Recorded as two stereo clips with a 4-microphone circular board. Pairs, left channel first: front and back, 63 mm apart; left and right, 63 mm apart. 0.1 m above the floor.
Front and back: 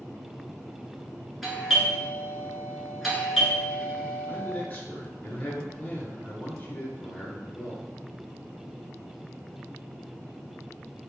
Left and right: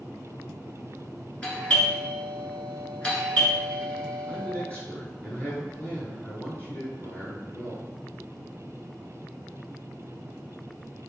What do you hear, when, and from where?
1.4 s a doorbell: 95° left, 1.5 m
4.3 s a man speaking: 45° left, 1.3 m